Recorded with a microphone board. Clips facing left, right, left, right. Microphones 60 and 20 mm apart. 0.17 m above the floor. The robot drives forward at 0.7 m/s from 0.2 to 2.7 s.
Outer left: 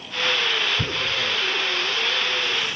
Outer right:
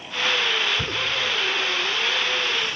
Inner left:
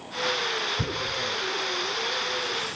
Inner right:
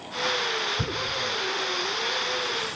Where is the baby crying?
No baby crying in this recording.